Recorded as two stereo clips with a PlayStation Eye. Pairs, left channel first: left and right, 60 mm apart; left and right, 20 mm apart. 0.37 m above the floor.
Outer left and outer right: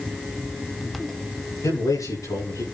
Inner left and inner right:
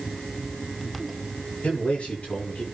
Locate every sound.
1.6 s a man speaking: 80° left, 10 m